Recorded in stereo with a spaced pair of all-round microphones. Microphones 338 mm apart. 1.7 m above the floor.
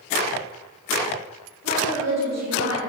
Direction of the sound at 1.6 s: 55° right (ahead or behind).